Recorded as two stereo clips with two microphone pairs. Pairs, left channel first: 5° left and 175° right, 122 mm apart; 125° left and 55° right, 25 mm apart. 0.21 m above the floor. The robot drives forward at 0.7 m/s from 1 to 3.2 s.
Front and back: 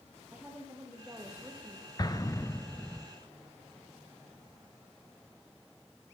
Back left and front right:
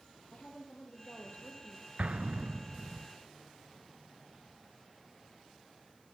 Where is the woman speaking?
105° left, 7 m; by 1.9 s 110° left, 7.5 m.